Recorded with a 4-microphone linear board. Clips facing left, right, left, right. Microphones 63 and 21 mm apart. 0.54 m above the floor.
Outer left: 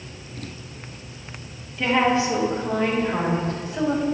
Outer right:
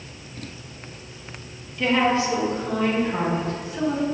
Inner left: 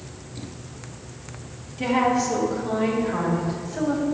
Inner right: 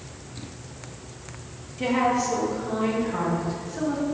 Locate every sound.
1.8 s a woman speaking: 10° left (ahead or behind), 0.9 m; by 4.0 s 40° left (ahead or behind), 3 m